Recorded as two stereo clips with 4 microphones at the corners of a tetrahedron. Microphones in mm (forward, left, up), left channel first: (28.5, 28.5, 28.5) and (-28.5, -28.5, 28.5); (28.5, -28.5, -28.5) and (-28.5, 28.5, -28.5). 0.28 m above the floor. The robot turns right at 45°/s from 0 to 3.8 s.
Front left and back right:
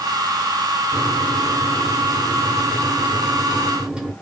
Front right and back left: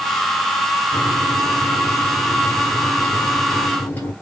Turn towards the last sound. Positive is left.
turn(degrees=-65)